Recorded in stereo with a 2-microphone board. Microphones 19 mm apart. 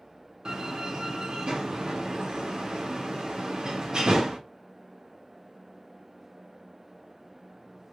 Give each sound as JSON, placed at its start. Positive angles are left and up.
{"t": 0.5, "sound": "a door slam", "side_deg": -40, "distance_m": 1.1}